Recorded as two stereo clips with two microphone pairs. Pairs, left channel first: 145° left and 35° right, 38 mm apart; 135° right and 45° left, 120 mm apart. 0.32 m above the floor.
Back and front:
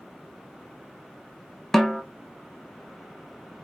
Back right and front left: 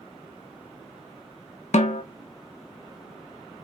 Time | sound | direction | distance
1.7 | a snare drum | 135° right | 0.6 m